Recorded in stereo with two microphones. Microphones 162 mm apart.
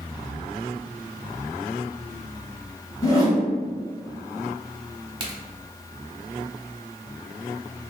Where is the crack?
30° right (ahead or behind), 0.8 m.